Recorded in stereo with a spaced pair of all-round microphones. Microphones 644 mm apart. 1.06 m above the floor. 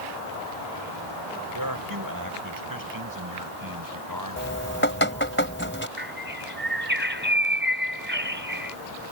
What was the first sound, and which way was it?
A man speaking, 30° right (ahead or behind).